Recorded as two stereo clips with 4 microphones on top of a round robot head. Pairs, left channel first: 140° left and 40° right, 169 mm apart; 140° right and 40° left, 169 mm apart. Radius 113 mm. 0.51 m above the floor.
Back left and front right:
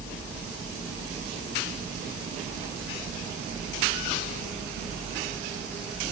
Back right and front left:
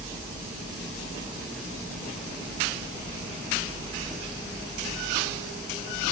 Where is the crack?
No crack in this recording.